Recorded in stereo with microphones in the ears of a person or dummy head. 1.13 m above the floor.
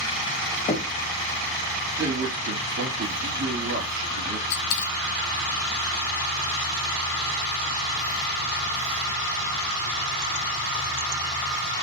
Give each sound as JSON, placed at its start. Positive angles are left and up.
{"t": 0.7, "sound": "knocking", "side_deg": 30, "distance_m": 0.8}
{"t": 2.0, "sound": "a man speaking", "side_deg": -80, "distance_m": 1.8}
{"t": 4.5, "sound": "a dropped coin", "side_deg": 60, "distance_m": 0.8}